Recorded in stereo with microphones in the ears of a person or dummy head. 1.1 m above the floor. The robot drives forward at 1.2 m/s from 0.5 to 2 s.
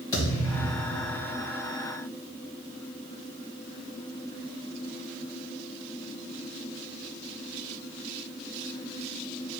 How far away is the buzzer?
No buzzer in this recording.